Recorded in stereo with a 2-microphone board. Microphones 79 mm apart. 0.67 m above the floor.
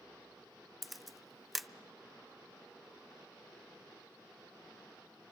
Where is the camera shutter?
Centre (ahead or behind), 0.6 m.